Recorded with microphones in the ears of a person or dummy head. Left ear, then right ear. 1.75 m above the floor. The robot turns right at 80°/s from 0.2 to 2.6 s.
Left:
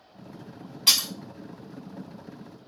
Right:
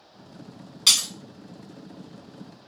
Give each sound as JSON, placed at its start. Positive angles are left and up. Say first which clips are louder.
{"t": 0.9, "sound": "breaking glass", "louder": "right 2 dB", "side_deg": -35, "distance_m": 2.0}